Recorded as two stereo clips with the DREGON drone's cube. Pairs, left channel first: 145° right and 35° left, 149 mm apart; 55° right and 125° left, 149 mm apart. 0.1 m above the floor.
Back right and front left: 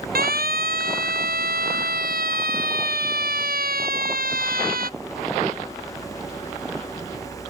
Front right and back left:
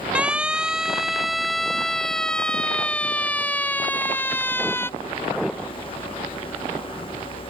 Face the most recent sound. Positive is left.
turn(degrees=20)